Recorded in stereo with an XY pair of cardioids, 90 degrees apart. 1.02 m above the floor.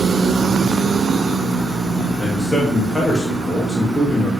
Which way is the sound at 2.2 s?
10° left.